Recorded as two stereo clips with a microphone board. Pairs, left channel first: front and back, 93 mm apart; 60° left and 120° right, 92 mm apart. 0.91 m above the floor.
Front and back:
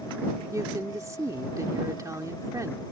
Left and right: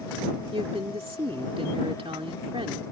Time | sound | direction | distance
0.5 | a woman speaking | 125° right | ?